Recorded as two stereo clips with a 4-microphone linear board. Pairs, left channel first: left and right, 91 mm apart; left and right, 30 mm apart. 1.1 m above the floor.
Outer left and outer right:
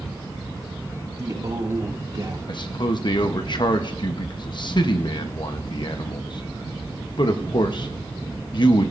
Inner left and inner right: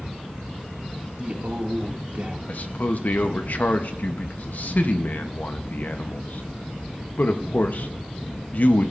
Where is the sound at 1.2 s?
40° right (ahead or behind), 2 m.